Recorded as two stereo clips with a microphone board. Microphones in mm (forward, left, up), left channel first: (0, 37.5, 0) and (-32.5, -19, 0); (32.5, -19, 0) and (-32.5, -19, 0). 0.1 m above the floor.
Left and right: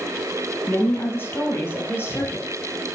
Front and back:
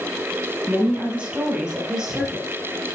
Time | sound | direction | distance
0.7 | a woman speaking | 110° left | 3 m